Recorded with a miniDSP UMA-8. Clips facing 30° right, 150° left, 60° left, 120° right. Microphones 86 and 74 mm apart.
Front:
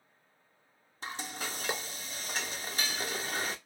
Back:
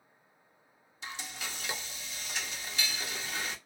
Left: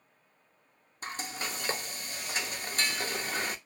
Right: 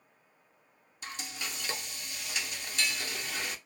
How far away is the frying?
About 0.5 m.